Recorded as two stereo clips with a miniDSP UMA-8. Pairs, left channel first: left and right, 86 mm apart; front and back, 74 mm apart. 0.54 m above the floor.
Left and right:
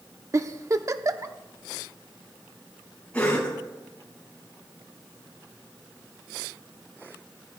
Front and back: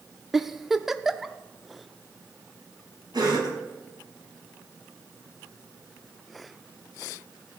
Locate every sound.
0.3 s a giggle: 95° right, 0.6 m
3.1 s a cough: 165° left, 4.5 m